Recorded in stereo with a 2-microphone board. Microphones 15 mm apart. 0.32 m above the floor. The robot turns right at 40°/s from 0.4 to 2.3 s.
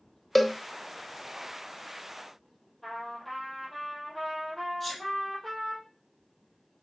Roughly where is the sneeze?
Centre.